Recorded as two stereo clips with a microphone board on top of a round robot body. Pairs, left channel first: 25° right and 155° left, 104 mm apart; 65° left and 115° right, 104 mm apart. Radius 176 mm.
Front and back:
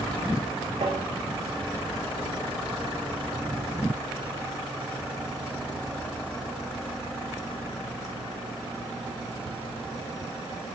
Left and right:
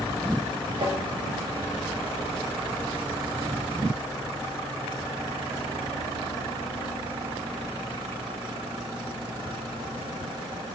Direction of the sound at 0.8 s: 155° right.